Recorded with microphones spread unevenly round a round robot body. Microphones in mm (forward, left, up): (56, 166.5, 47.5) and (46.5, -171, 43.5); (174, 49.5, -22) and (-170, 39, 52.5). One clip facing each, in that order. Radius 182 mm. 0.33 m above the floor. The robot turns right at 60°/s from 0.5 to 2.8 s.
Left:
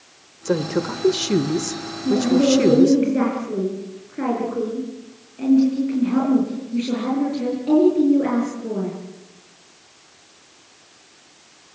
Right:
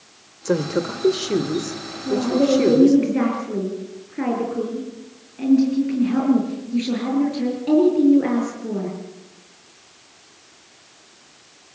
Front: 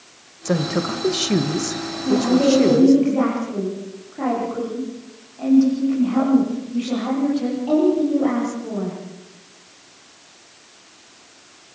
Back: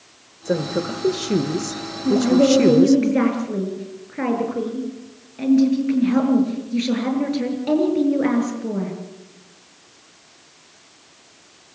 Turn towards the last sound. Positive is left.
turn(degrees=-175)